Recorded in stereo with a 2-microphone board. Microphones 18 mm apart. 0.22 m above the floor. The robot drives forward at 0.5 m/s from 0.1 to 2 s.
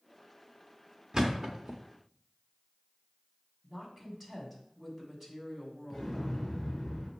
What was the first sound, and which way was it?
A thud, 35° right (ahead or behind).